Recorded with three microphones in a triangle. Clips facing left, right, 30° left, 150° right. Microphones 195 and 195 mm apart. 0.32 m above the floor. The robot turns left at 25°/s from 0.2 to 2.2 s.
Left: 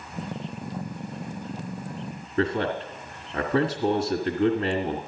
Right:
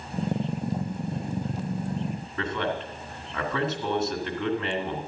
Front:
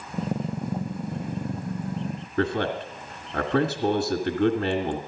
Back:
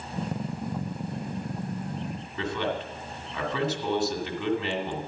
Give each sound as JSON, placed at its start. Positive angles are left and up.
{"t": 2.4, "sound": "a man speaking", "azimuth_deg": 40, "distance_m": 1.8}